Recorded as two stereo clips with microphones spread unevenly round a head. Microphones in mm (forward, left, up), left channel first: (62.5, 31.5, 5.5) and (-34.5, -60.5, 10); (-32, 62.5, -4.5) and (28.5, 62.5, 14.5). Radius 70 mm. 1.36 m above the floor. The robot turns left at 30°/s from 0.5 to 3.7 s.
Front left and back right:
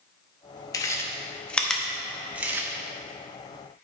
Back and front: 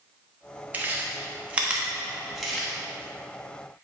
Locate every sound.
0.7 s chewing: 15° right, 0.9 m; by 2.7 s 70° right, 0.9 m